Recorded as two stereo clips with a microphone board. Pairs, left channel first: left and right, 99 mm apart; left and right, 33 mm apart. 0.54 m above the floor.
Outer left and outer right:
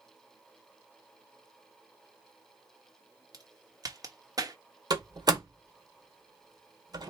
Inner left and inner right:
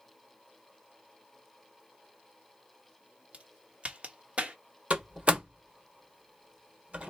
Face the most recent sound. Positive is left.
turn(degrees=-40)  # may be behind; listen again after turning